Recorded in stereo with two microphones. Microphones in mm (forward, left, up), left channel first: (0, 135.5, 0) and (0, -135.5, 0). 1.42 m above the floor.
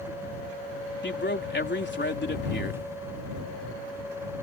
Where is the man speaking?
45° left (ahead or behind).